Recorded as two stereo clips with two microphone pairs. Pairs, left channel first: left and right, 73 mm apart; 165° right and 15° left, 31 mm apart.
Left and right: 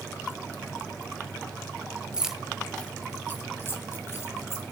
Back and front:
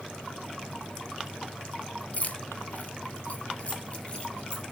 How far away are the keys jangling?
About 1.2 m.